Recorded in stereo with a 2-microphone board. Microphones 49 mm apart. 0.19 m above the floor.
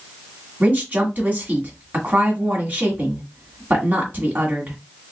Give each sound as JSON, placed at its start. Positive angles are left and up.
{"t": 0.6, "sound": "a woman speaking", "side_deg": -40, "distance_m": 1.5}